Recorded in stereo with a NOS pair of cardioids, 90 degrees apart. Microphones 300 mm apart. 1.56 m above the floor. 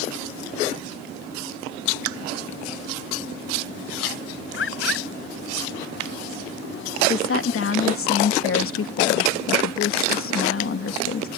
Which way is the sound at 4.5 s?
45° left.